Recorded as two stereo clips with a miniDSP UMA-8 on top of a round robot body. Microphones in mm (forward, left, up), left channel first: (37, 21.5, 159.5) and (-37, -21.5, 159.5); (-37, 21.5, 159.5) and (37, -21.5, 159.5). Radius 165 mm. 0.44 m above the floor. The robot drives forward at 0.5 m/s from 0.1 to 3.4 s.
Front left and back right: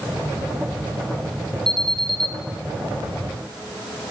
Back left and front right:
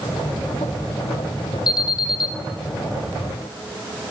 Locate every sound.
1.7 s an alarm: 115° left, 4.5 m